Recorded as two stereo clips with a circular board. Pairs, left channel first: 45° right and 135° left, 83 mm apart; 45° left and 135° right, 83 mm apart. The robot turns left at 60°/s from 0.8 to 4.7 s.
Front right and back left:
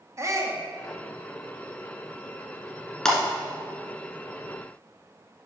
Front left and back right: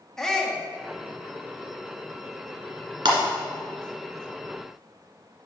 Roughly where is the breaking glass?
Behind right.